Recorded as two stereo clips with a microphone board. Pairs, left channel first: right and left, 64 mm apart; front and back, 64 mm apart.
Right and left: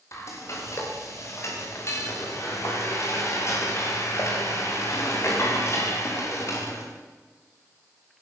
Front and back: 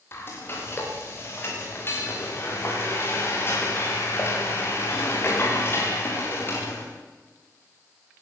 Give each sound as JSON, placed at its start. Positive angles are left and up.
{"t": 0.1, "sound": "frying", "azimuth_deg": -50, "distance_m": 9.0}